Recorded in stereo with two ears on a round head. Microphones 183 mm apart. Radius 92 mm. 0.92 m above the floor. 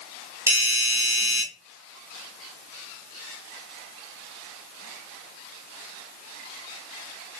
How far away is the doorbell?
About 0.7 m.